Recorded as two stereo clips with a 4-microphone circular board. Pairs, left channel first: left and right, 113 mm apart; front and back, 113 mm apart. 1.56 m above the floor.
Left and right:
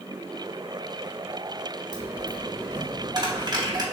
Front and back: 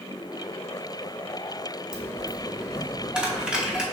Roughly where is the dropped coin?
Right.